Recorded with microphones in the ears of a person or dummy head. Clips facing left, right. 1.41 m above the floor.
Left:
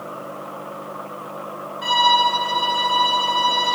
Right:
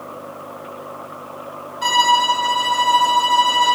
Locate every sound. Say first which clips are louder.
1.8 s a violin: right 1 dB; 60° right (ahead or behind), 9 m